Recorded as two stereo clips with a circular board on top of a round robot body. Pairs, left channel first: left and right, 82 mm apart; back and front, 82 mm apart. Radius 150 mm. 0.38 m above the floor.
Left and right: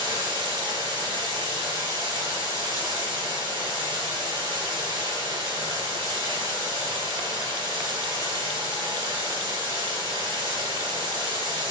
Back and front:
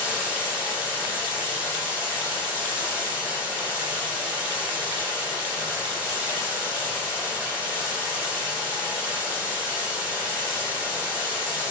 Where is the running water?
70° right, 2.0 m.